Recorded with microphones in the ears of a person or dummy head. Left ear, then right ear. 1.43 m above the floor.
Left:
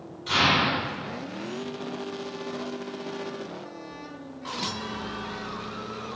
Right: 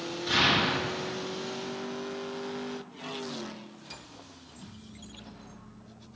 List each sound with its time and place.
0.3 s an explosion: 20° left (ahead or behind), 1.5 m